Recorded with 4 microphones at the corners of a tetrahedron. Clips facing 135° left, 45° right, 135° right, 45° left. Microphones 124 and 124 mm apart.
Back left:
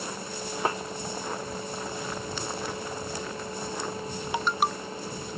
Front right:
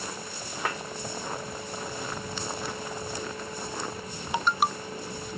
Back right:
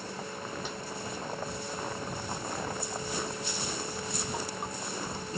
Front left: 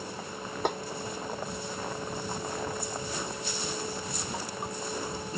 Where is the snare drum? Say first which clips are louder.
Back left 4 dB, front left 10 dB; 75° left.